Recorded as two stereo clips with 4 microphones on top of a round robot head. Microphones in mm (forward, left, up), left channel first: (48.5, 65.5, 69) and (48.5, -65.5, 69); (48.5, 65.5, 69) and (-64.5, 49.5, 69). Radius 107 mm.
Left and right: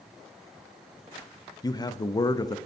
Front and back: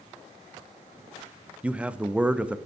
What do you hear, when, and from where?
1.6 s a man speaking: 115° left, 0.5 m